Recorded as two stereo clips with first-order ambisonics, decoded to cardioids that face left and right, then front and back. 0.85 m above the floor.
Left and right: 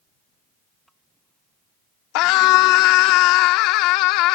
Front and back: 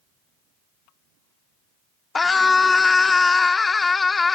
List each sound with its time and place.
2.1 s a scream: 75° left